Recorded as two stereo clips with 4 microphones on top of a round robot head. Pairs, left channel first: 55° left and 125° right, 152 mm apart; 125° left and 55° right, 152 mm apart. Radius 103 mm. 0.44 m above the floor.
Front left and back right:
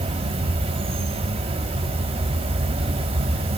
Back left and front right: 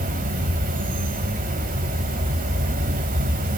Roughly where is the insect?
Right.